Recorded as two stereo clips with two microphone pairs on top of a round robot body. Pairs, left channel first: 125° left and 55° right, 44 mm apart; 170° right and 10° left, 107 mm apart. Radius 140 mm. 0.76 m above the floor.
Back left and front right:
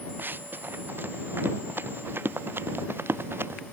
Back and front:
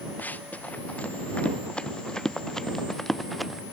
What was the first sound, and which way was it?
Running footsteps, 95° right.